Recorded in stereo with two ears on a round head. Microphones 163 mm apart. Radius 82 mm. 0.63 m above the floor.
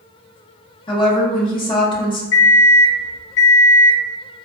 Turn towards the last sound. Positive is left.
turn(degrees=60)  # may be behind; listen again after turning